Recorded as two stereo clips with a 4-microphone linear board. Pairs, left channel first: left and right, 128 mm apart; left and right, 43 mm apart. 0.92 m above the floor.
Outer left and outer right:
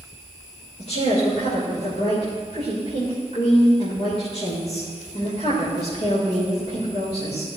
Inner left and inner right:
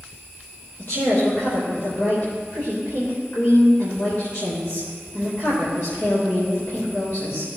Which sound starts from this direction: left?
A woman speaking, at 0.8 s.